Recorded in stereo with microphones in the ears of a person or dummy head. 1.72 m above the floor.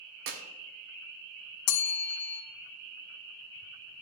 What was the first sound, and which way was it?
A clap, 60° right (ahead or behind).